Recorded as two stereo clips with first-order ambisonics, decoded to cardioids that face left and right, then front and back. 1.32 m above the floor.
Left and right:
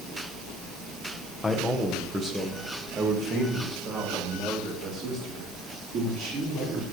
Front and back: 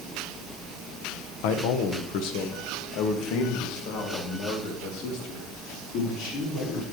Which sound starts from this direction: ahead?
A man speaking, at 1.4 s.